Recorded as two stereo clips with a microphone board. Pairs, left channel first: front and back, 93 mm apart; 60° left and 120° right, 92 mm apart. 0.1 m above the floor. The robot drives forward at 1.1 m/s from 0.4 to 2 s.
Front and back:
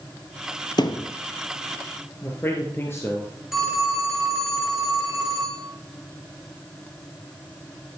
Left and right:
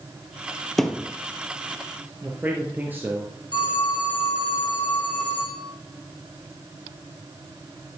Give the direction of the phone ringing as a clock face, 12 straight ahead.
9 o'clock.